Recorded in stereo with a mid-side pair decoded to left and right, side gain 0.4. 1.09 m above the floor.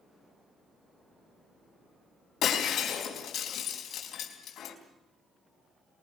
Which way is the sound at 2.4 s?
70° left.